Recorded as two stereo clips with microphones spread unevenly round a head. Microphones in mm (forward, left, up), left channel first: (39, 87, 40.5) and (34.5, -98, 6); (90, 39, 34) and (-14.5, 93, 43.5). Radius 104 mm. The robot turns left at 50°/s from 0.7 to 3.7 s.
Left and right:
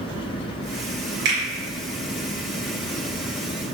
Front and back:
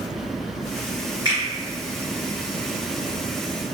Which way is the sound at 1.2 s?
135° right.